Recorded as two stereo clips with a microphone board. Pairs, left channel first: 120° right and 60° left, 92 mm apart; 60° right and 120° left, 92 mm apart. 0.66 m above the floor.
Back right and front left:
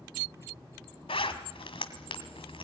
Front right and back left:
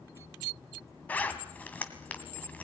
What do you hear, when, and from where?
1.1 s a zipper: 135° right, 1.8 m